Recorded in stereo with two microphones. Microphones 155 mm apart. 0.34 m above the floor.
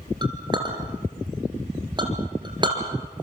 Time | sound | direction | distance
0.2 | a clink | 30° right (ahead or behind) | 3 m